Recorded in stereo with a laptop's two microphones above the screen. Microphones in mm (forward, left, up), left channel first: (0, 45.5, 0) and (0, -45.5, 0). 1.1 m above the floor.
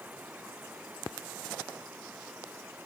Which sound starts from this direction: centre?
Running water, at 0.0 s.